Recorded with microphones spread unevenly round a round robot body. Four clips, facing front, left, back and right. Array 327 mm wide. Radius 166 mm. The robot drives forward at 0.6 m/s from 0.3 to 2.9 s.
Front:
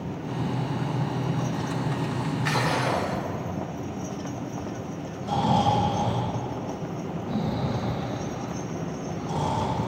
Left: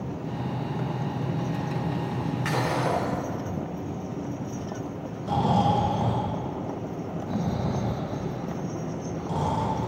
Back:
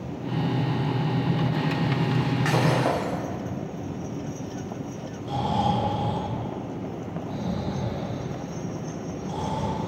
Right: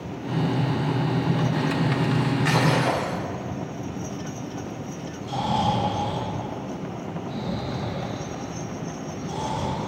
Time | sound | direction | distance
2.5 | breaking glass | 175° left | 5.5 m
5.2 | snoring | 50° left | 6 m